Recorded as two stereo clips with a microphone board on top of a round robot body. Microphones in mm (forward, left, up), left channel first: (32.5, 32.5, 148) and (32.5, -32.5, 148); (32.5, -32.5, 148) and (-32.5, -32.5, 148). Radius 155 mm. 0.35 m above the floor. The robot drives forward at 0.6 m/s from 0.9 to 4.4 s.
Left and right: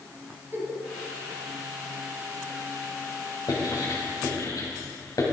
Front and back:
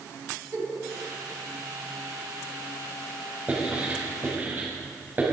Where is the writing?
110° left, 3.5 m; by 5.2 s 120° left, 4 m.